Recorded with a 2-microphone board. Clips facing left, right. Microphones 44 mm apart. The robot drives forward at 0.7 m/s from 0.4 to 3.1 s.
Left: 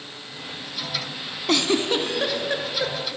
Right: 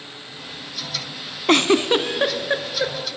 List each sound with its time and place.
1.5 s a giggle: 45° right (ahead or behind), 0.6 m; by 3.1 s 15° right (ahead or behind), 1.4 m